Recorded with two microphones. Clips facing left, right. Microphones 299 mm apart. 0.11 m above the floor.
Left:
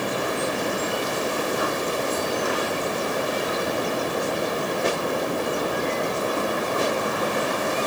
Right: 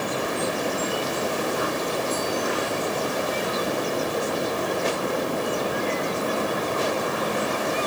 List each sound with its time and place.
Only background noise.